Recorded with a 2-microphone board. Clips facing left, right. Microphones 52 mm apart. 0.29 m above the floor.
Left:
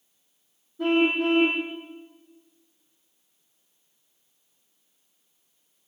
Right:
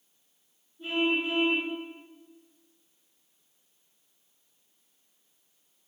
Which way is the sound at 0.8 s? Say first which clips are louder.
Left 6 dB; 80° left.